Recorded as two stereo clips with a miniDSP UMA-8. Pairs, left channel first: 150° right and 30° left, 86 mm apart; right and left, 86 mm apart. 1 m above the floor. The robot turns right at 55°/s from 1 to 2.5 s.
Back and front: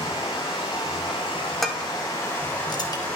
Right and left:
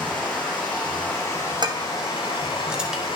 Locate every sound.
0.0 s running water: 165° right, 3.5 m; by 3.2 s 80° right, 3.5 m
1.6 s dishes clattering: 120° left, 0.9 m; by 3.1 s 170° left, 0.9 m